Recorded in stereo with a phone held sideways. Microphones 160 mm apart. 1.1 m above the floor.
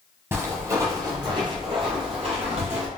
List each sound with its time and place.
0.3 s footsteps: 15° right (ahead or behind), 1.5 m; by 2.9 s 45° right (ahead or behind), 1.5 m